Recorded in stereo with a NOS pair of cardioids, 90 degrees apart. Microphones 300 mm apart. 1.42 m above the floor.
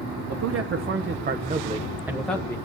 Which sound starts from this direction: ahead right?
A man speaking, at 0.3 s.